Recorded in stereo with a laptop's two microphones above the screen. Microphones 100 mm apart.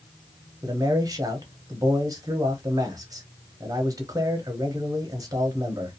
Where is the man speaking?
35° right (ahead or behind), 0.9 m.